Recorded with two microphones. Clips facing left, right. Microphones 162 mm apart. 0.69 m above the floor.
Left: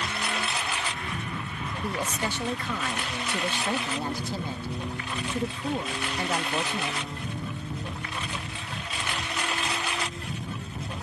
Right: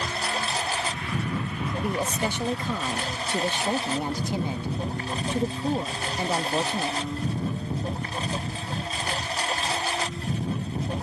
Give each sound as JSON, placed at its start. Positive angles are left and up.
{"t": 0.0, "sound": "a lawn mower", "side_deg": -35}
{"t": 1.8, "sound": "a woman speaking", "side_deg": -15}